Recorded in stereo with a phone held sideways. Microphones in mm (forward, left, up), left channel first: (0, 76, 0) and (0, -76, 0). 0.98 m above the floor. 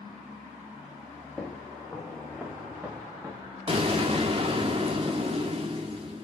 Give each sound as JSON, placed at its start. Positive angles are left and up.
{"t": 1.4, "sound": "footsteps", "side_deg": 0, "distance_m": 3.5}
{"t": 3.7, "sound": "an explosion", "side_deg": -40, "distance_m": 1.7}